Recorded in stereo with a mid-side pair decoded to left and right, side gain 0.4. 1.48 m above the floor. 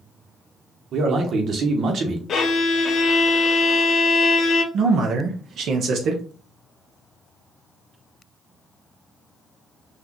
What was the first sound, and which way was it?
A man speaking, 65° right.